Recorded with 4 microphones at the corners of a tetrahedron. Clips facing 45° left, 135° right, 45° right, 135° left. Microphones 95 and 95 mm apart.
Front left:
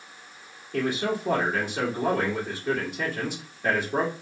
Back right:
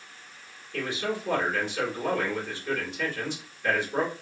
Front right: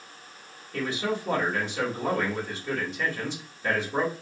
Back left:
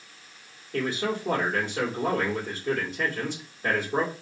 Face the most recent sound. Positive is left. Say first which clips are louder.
# front left 4 dB, back left 1 dB
turn(degrees=90)